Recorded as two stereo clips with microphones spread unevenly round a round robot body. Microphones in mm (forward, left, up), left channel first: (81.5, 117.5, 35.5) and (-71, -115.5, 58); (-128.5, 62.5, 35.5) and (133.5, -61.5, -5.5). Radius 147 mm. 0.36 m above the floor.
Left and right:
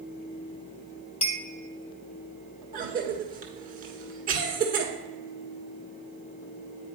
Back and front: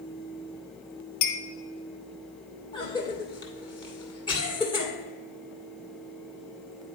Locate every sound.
1.2 s a clink: 120° left, 1.2 m
2.7 s a cough: 135° right, 1.5 m